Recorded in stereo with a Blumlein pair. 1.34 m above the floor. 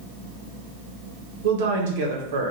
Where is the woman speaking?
55° right, 0.8 m.